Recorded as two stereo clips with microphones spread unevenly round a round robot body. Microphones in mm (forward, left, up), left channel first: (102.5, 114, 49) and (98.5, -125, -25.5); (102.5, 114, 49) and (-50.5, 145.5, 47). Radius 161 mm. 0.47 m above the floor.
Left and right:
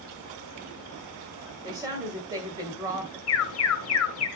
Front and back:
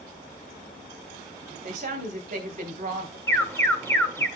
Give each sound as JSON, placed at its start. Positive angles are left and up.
{"t": 1.6, "sound": "a woman speaking", "azimuth_deg": -155, "distance_m": 1.5}
{"t": 3.3, "sound": "an alarm", "azimuth_deg": 65, "distance_m": 1.6}